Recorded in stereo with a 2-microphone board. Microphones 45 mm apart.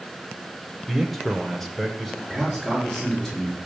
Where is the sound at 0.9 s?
5° left (ahead or behind), 1.2 m.